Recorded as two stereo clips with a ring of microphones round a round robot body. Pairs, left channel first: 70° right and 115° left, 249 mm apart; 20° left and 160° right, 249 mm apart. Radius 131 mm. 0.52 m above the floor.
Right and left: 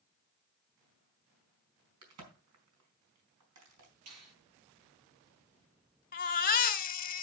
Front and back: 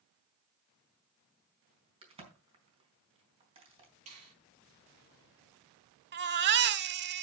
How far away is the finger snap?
About 9.5 m.